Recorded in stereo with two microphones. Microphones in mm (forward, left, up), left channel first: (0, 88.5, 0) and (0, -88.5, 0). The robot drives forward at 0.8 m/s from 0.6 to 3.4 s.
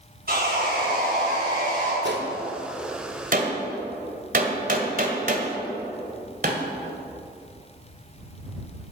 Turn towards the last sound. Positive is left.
turn(degrees=-50)  # may be behind; listen again after turning